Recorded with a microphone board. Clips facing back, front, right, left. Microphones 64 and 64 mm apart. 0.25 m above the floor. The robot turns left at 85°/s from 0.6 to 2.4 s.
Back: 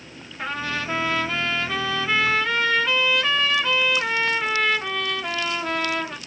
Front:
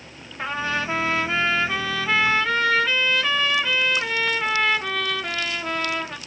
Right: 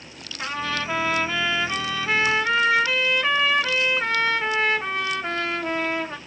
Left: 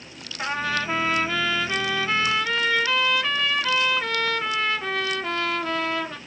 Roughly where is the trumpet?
Ahead left.